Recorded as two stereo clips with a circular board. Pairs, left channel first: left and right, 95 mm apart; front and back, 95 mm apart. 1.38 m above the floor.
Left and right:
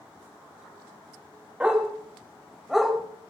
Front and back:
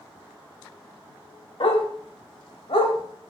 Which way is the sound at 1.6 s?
15° right.